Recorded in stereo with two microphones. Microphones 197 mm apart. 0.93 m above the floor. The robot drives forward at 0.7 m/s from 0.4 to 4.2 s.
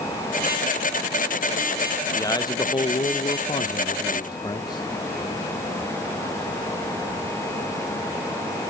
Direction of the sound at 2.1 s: 15° left (ahead or behind).